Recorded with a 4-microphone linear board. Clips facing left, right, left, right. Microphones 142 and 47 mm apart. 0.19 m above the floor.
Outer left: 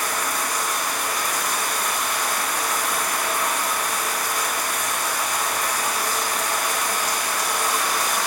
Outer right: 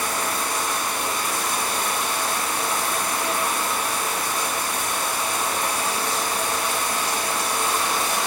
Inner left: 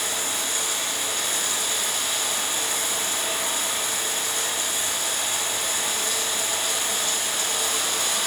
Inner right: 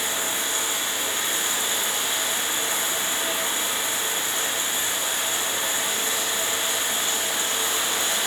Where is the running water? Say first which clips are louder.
Even, inner right 1 dB; 30° right (ahead or behind), 0.8 m.